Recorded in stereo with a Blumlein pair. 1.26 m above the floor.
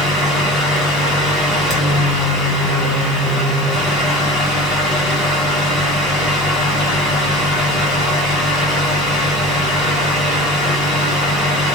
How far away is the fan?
About 2.0 m.